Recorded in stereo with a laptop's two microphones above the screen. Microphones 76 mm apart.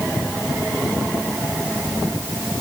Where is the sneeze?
I don't hear a sneeze.